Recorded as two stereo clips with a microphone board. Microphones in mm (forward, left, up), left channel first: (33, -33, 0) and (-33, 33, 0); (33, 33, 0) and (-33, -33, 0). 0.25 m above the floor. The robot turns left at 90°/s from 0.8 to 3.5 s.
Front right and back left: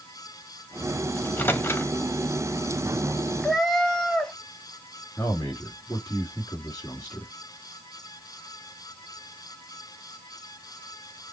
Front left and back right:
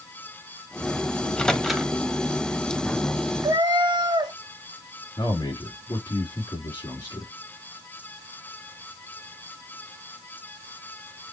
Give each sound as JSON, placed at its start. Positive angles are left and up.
{"t": 1.2, "sound": "a microwave", "azimuth_deg": 0, "distance_m": 0.7}
{"t": 3.4, "sound": "a cat meowing", "azimuth_deg": -120, "distance_m": 0.7}
{"t": 5.2, "sound": "a man speaking", "azimuth_deg": 15, "distance_m": 3.5}